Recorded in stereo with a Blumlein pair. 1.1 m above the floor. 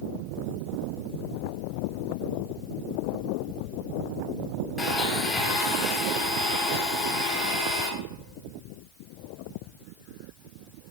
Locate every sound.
4.8 s a blender: 5° left, 2.5 m